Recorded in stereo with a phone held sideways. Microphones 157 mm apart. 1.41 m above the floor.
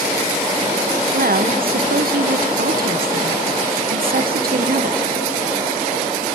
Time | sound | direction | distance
1.1 | a woman speaking | 70° right (ahead or behind) | 1.1 m